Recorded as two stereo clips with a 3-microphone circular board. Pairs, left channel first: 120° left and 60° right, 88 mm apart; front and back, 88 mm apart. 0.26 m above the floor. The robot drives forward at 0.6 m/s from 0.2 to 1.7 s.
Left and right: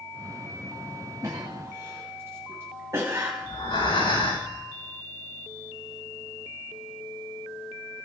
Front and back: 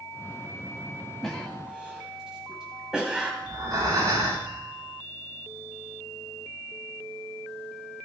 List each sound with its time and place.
1.2 s a cough: 85° right, 1.3 m; by 3.3 s 100° right, 1.3 m
3.4 s breathing: 130° left, 8 m